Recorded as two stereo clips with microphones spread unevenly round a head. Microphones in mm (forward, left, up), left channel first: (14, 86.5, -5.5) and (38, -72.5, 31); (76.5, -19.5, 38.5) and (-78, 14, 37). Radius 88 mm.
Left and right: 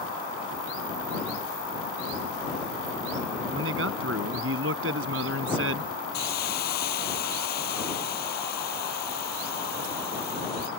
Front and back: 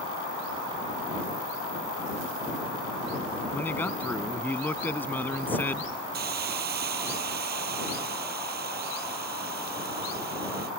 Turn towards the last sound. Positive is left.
turn(degrees=140)